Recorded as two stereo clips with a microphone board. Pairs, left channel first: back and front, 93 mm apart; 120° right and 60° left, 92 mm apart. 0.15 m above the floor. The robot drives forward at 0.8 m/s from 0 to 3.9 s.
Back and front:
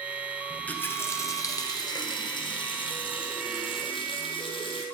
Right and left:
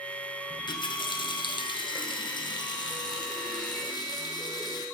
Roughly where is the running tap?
Right.